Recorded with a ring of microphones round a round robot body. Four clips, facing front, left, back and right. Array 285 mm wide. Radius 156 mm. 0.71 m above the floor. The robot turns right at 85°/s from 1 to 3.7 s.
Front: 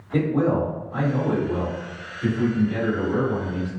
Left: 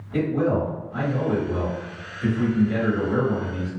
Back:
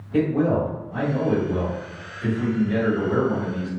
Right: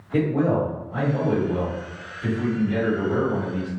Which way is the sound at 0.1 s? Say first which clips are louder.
Right 1 dB, back 1 dB; 20° right.